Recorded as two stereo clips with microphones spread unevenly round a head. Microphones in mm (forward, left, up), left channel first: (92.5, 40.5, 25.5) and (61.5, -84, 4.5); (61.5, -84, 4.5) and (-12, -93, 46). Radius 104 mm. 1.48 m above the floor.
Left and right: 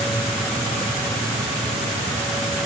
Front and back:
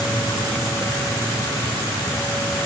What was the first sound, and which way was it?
Only background noise.